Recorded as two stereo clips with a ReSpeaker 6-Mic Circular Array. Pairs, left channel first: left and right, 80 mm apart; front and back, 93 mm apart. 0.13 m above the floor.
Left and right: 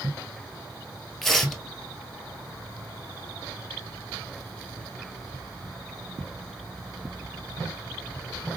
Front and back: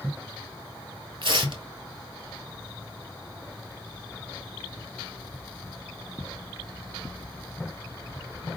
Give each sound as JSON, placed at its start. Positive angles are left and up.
{"t": 1.2, "sound": "tearing paper", "azimuth_deg": 175, "distance_m": 0.9}